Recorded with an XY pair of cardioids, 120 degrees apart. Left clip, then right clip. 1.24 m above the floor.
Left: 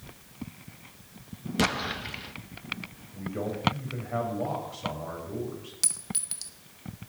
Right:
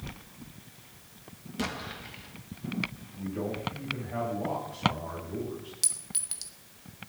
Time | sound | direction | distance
1.6 | an explosion | 50° left | 1.0 m
3.1 | a man speaking | 35° left | 8 m
5.8 | a clink | 5° left | 1.3 m